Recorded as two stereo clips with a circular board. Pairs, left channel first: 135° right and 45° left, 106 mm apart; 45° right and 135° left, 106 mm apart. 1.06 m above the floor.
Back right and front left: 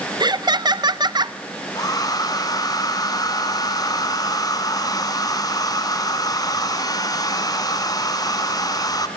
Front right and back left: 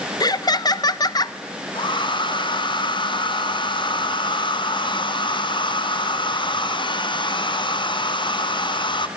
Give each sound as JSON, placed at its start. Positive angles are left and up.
{"t": 0.2, "sound": "laughter", "azimuth_deg": 0, "distance_m": 0.8}
{"t": 1.8, "sound": "a hair dryer", "azimuth_deg": -85, "distance_m": 2.5}